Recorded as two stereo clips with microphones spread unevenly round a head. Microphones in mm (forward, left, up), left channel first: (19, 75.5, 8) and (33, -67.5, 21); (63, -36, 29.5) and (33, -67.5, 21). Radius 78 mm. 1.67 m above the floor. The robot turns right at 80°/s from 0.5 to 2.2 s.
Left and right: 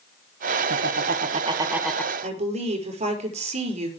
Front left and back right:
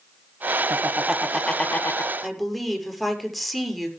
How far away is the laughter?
About 2.0 m.